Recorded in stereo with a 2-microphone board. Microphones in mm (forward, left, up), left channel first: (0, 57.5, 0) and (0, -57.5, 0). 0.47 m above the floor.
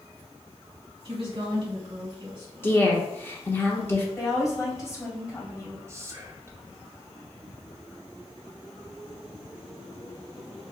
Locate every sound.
1.1 s a woman speaking: 45° right (ahead or behind), 2 m
2.6 s a woman speaking: 20° left (ahead or behind), 0.9 m
4.2 s a woman speaking: 25° left (ahead or behind), 1.8 m
5.9 s whispering: 25° right (ahead or behind), 0.7 m